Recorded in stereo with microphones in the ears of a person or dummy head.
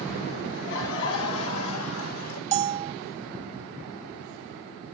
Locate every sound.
0.5 s laughter: 65° left (ahead or behind), 3.5 m; by 2.4 s 75° left (ahead or behind), 4.5 m
2.5 s a bell: 30° right (ahead or behind), 0.8 m